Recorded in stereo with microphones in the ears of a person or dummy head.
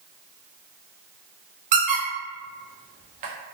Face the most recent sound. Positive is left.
turn(degrees=-40)  # may be behind; listen again after turning